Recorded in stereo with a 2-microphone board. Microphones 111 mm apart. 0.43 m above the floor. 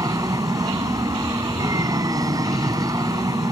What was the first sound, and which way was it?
An aircraft, 35° right (ahead or behind).